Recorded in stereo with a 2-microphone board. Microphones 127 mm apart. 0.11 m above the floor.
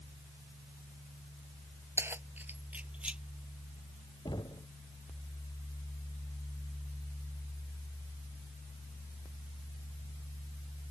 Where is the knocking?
35° left (ahead or behind).